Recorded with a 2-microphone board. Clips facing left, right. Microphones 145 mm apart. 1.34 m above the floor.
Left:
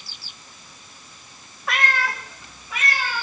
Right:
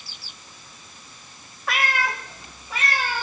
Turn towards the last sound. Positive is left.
turn(degrees=-40)  # may be behind; listen again after turning